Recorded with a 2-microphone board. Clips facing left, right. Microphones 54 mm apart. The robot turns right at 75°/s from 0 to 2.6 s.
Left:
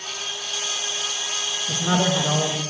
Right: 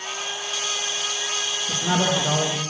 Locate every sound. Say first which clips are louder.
1.7 s a man speaking: left 1 dB; 130° left, 1.2 m; by 2.6 s 160° right, 1.2 m